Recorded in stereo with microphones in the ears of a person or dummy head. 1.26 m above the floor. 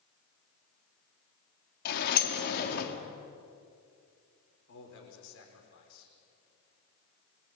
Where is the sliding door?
55° left (ahead or behind), 2.5 m.